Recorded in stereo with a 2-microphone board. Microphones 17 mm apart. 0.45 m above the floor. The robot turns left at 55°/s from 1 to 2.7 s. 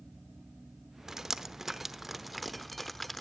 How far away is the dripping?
About 0.9 m.